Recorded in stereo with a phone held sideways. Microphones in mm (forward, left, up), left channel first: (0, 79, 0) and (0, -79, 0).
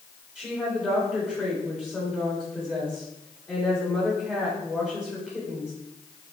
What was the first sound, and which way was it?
A woman speaking, centre (ahead or behind).